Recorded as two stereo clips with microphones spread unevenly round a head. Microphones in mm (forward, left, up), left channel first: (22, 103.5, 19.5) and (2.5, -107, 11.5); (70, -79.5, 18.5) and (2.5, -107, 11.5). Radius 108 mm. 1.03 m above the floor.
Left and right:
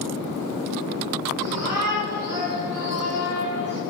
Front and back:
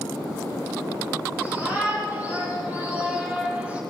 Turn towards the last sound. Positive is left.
turn(degrees=-85)